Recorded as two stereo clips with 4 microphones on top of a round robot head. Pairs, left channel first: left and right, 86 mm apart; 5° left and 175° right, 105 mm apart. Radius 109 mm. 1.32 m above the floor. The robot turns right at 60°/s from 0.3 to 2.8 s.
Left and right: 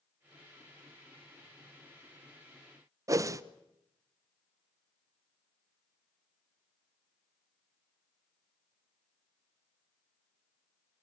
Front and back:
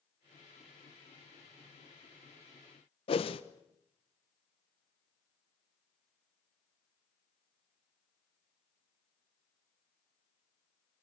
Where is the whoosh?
35° right, 0.8 m.